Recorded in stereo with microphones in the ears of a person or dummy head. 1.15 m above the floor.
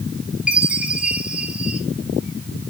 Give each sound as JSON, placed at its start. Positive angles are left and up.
{"t": 0.5, "sound": "a chime", "side_deg": -5, "distance_m": 3.5}